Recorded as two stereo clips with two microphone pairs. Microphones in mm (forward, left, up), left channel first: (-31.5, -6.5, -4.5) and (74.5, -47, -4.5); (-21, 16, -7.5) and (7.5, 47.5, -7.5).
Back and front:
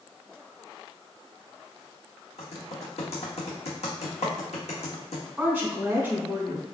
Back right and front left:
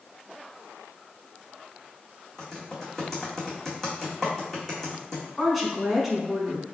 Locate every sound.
2.4 s typing on a keyboard: 150° left, 1.6 m
5.4 s a woman speaking: 40° right, 1.0 m